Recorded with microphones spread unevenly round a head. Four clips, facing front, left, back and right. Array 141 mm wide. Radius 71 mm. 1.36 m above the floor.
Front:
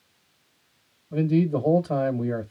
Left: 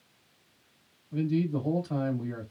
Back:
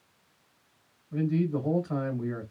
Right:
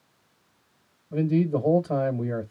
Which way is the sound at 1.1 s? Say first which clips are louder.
Right 5 dB, front 5 dB; 55° right.